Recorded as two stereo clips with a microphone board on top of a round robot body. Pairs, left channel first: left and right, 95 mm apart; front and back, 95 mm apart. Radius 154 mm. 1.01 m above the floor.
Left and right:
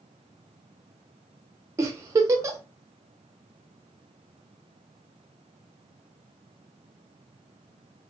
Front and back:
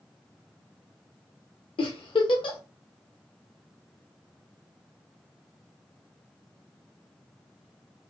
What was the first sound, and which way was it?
A giggle, 30° right.